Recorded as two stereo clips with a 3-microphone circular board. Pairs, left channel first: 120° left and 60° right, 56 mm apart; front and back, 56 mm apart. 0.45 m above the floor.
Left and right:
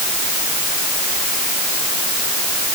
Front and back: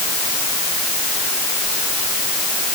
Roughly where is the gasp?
No gasp in this recording.